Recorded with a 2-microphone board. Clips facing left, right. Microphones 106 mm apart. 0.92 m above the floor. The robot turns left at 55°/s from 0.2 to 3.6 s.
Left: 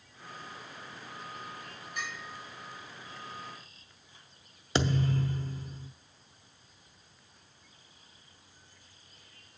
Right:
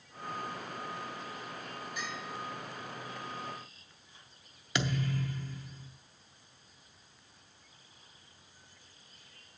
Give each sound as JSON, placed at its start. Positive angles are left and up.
{"t": 2.0, "sound": "a bell", "side_deg": 50, "distance_m": 6.0}
{"t": 4.8, "sound": "a thud", "side_deg": 30, "distance_m": 0.7}